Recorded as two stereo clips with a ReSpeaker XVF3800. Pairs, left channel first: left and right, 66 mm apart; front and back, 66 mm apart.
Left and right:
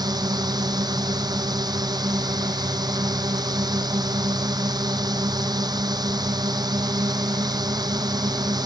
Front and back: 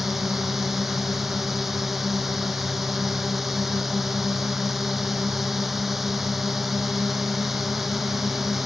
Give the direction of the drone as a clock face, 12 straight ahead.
3 o'clock.